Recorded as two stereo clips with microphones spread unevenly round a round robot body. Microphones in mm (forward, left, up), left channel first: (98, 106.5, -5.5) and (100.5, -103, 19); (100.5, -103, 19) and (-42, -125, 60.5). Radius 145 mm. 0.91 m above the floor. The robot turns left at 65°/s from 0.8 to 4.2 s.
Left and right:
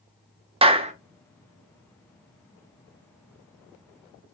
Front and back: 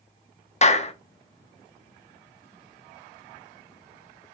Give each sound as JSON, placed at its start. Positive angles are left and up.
{"t": 0.6, "sound": "a clap", "azimuth_deg": -20, "distance_m": 0.8}